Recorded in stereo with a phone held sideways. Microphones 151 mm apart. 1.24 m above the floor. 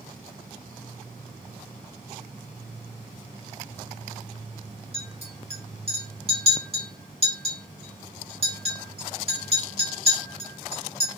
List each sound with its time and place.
4.9 s a clink: 40° right (ahead or behind), 0.9 m